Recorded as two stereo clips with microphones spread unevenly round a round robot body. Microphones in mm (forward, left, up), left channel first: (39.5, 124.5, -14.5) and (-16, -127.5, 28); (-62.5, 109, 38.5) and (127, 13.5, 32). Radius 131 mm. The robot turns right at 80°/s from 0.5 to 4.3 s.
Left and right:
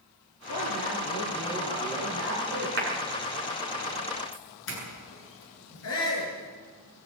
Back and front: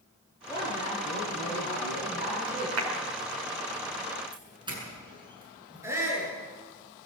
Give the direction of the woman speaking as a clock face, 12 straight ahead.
9 o'clock.